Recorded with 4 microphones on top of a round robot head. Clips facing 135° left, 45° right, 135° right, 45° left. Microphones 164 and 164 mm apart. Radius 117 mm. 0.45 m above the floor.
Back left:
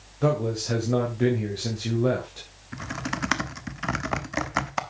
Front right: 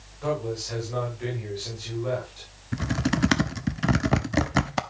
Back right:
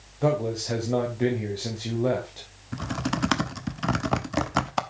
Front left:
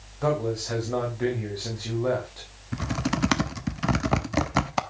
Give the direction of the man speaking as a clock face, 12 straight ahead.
7 o'clock.